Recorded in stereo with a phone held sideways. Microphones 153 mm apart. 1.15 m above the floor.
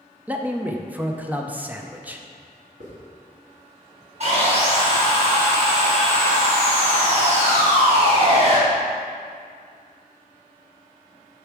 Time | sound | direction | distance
0.3 | a man speaking | 10° right (ahead or behind) | 0.5 m
2.8 | a hiss | 50° right (ahead or behind) | 2 m
4.2 | sawing | 45° right (ahead or behind) | 2.5 m